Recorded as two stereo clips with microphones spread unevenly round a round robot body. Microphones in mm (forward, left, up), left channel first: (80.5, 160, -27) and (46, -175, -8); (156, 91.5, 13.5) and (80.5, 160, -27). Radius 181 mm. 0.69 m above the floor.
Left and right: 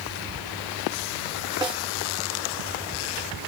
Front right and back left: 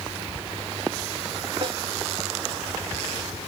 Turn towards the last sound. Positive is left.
turn(degrees=-175)